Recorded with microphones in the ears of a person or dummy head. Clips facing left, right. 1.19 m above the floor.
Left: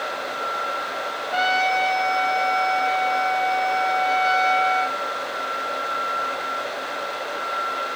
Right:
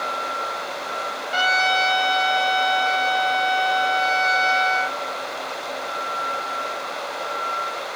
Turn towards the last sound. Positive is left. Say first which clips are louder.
# left 2 dB
turn(degrees=-75)  # may be behind; listen again after turning